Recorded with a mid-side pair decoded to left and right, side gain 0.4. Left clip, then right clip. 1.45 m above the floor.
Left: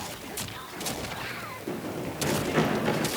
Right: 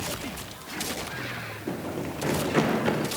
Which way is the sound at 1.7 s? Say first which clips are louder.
Right 2 dB; 20° right.